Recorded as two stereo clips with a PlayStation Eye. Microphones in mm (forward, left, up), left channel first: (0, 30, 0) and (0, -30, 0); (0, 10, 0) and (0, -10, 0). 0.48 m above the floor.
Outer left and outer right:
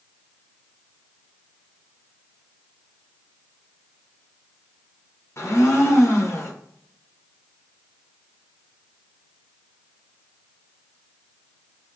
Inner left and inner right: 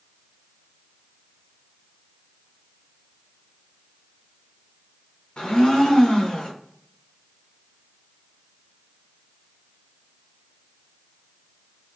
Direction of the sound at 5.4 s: 50° left (ahead or behind).